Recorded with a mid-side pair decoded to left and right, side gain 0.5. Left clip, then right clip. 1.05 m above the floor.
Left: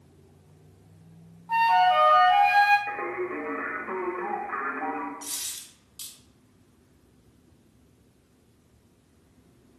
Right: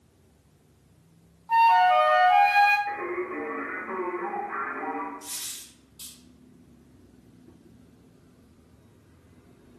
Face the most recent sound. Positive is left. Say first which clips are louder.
# left 2 dB
turn(degrees=55)